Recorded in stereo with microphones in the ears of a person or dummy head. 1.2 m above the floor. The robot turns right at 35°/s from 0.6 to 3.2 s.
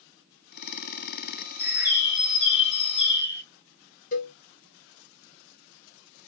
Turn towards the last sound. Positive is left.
turn(degrees=45)  # may be behind; listen again after turning